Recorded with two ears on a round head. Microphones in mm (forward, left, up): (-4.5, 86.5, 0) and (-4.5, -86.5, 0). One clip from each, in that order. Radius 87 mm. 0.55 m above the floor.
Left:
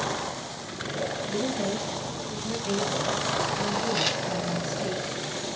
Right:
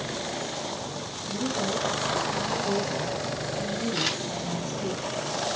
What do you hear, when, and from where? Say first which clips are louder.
1.3 s a woman speaking: even; 15° left (ahead or behind), 3.5 m; by 4.9 s 20° right (ahead or behind), 3.5 m
3.9 s a camera shutter: even; centre (ahead or behind), 3 m